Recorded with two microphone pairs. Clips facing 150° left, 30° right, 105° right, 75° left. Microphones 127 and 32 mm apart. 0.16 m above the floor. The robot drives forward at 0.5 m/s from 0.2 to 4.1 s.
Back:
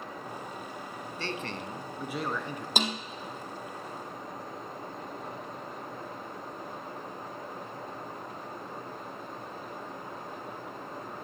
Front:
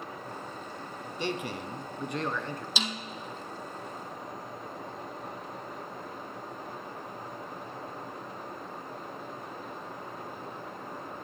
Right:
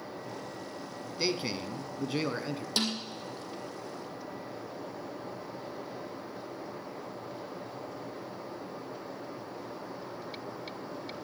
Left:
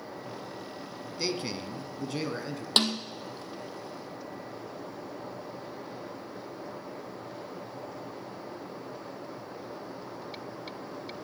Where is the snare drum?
110° left, 1.7 m; by 3.0 s 115° left, 1.8 m.